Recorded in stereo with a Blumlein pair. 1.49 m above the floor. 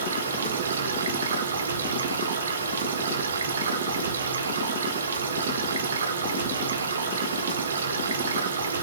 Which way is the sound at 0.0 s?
65° right.